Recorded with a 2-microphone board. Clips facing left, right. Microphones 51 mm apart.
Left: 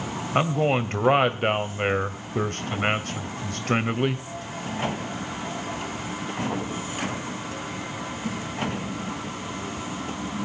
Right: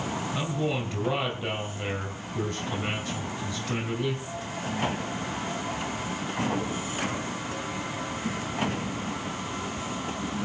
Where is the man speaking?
55° left (ahead or behind), 2 m.